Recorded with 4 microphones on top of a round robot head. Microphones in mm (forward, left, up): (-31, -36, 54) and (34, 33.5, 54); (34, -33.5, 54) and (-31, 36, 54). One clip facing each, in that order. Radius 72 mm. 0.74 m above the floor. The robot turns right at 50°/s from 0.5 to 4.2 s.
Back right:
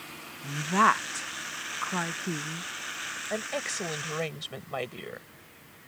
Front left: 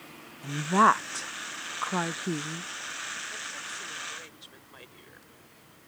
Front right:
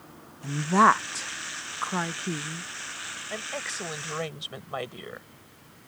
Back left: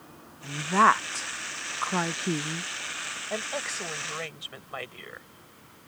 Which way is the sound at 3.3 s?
160° right.